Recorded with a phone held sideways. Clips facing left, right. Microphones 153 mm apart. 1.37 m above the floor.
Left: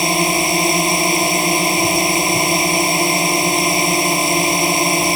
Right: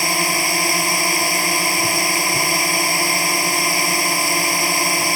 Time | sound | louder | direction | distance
0.0 | a drone | left 5 dB | 20° left (ahead or behind) | ?